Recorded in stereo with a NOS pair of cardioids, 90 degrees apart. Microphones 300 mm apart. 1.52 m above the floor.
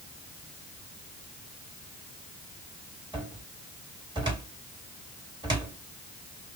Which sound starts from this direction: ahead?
A cupboard door, at 3.1 s.